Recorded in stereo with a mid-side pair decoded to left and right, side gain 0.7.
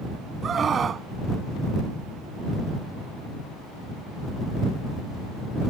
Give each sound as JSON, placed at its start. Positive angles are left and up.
{"t": 0.4, "sound": "a scream", "azimuth_deg": -30}